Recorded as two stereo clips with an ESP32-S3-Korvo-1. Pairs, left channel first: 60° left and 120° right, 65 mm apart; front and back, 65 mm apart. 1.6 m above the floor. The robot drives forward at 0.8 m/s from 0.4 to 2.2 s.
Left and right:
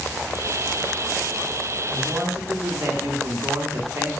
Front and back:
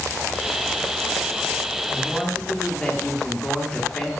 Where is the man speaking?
65° right, 1.5 m; by 4.1 s 75° right, 1.4 m.